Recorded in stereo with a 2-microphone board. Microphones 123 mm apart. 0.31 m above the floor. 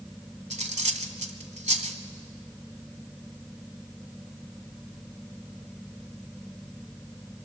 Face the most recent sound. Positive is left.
turn(degrees=-65)  # may be behind; listen again after turning